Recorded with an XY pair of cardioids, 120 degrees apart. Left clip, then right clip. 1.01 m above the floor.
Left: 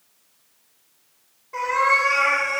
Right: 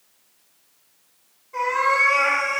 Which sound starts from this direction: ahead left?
A cat meowing, at 1.5 s.